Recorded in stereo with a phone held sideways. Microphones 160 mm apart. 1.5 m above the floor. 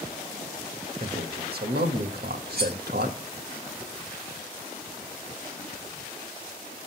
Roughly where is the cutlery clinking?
Right.